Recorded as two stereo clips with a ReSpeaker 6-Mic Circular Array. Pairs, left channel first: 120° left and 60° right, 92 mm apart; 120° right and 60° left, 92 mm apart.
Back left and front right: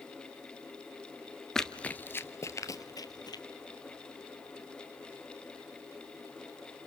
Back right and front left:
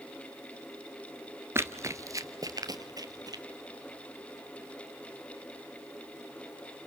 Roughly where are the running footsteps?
Ahead left.